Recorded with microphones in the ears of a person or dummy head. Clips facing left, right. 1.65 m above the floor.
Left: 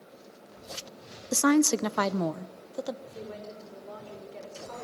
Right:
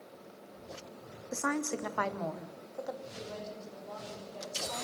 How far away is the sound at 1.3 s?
About 0.5 m.